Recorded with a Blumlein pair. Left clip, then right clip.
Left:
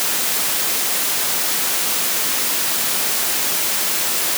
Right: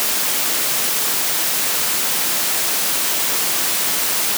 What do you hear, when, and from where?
Only background noise.